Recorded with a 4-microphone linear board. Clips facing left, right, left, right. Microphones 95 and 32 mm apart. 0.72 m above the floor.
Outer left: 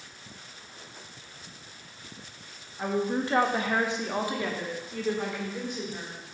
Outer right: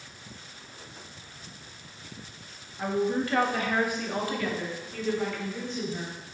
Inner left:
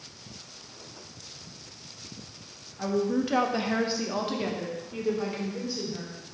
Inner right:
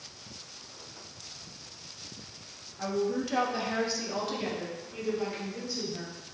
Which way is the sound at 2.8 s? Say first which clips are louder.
Outer right 1 dB, inner left 3 dB; 15° left (ahead or behind).